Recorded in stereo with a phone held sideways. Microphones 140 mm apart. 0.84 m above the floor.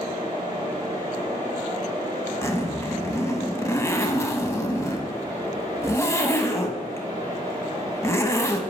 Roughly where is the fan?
Right.